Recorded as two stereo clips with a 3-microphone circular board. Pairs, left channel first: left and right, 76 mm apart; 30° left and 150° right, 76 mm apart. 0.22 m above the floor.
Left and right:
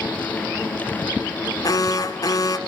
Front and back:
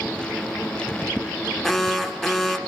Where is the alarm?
115° left, 1.7 m.